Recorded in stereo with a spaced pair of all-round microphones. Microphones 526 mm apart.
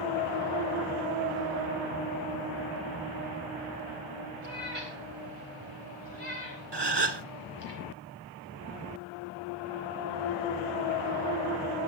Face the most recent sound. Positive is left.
turn(degrees=-45)  # may be behind; listen again after turning